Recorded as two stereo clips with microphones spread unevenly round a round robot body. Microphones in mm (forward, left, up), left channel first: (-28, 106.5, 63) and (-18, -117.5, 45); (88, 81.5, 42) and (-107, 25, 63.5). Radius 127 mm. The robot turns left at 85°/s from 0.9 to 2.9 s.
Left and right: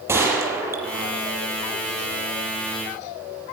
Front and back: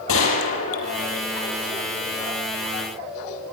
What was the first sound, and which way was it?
A gunshot, 5° right.